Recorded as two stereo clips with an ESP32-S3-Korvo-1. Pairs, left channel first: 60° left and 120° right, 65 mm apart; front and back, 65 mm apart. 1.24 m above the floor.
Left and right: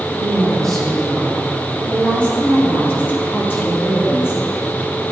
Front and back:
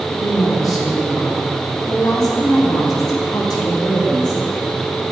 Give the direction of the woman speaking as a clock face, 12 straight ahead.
1 o'clock.